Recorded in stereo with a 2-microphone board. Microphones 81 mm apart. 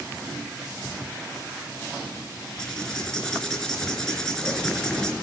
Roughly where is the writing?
Centre.